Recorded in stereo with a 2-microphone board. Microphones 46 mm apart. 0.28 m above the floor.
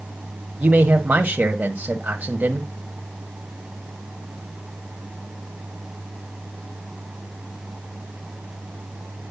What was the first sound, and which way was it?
A man speaking, 35° right (ahead or behind).